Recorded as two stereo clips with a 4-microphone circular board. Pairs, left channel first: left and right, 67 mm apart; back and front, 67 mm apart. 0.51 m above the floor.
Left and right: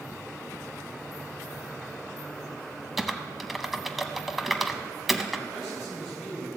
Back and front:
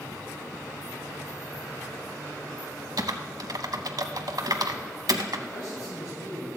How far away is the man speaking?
About 3 m.